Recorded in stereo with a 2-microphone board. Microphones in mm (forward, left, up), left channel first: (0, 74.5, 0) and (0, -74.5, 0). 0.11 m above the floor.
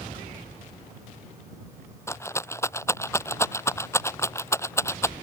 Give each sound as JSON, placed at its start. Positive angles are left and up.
{"t": 2.1, "sound": "a rattle", "side_deg": 20}